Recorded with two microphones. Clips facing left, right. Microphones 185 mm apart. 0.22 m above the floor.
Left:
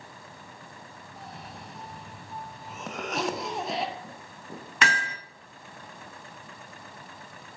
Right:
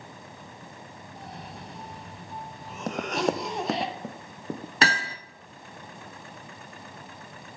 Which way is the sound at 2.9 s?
40° right (ahead or behind).